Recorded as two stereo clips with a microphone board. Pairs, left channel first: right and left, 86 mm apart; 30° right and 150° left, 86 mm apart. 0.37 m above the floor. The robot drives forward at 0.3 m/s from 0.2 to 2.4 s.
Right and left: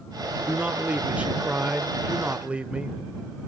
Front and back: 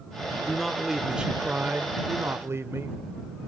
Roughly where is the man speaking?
Ahead left.